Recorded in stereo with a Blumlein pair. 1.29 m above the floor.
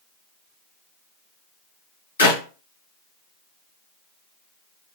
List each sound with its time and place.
2.2 s a clap: 65° left, 0.9 m